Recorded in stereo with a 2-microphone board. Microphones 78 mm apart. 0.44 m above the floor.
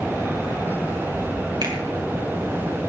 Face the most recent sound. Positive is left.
turn(degrees=-65)  # may be behind; listen again after turning